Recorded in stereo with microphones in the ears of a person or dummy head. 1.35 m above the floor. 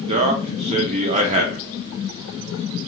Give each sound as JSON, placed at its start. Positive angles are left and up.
{"t": 0.1, "sound": "a man speaking", "side_deg": -40, "distance_m": 0.7}